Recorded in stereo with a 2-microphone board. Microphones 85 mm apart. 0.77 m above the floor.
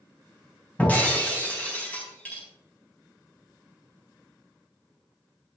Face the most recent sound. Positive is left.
turn(degrees=20)  # may be behind; listen again after turning